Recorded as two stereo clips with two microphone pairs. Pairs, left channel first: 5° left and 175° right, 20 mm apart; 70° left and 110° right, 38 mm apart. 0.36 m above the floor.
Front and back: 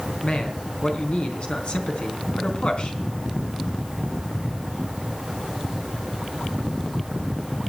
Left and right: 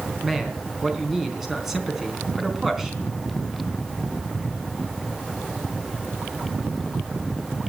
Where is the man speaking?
25° right, 3.5 m.